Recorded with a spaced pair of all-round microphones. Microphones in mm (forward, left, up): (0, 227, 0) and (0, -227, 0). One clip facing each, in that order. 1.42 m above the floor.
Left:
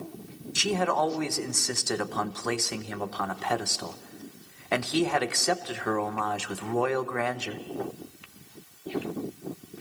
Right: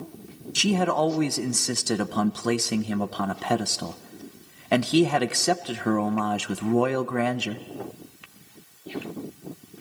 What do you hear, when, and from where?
0.6 s a man speaking: 50° right (ahead or behind), 0.8 m